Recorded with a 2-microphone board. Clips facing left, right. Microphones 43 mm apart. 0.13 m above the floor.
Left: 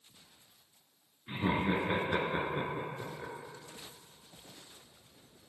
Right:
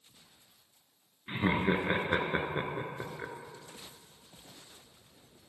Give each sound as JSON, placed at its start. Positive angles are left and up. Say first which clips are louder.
{"t": 1.3, "sound": "laughter", "louder": "right 2 dB", "side_deg": -30, "distance_m": 1.5}